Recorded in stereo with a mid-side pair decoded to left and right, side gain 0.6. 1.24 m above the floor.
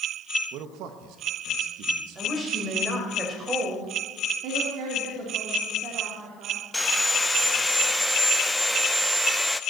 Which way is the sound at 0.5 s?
70° right.